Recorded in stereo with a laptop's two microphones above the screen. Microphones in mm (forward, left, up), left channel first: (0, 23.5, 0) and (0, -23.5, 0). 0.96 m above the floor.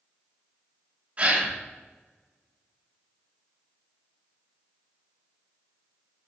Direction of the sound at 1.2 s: 30° right (ahead or behind).